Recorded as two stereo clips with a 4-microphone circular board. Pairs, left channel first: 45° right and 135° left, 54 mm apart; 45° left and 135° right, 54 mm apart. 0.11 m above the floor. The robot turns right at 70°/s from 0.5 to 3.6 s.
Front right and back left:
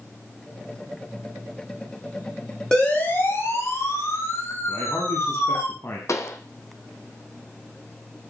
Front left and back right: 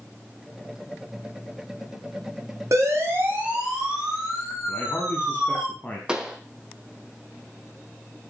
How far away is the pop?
About 1.9 m.